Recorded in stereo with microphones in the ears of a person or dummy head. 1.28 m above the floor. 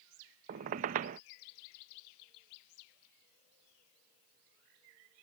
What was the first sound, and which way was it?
A squeak, 40° right (ahead or behind).